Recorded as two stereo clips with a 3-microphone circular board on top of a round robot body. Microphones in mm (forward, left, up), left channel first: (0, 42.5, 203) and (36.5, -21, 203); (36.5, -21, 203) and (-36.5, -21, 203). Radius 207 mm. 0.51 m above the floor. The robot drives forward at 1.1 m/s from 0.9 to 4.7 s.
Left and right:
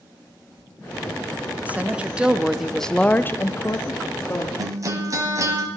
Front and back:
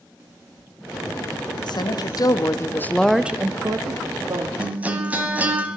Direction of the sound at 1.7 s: 10° left.